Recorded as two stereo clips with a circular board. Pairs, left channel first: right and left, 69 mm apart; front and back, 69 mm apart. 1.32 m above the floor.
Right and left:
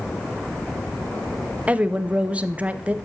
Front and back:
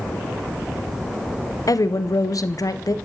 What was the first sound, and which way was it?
A woman speaking, 20° left.